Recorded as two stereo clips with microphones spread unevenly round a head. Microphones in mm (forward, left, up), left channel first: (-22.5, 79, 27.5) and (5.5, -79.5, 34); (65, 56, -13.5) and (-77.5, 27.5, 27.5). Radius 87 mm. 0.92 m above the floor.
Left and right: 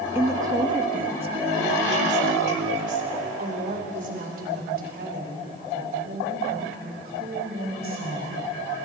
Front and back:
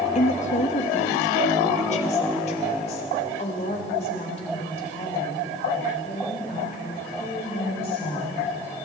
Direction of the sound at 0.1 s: 5° right.